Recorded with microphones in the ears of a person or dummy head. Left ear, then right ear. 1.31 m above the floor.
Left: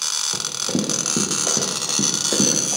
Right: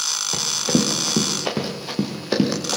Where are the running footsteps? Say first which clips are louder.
Right 3 dB; 55° right (ahead or behind), 7 m; by 2.8 s 70° right (ahead or behind), 7.5 m.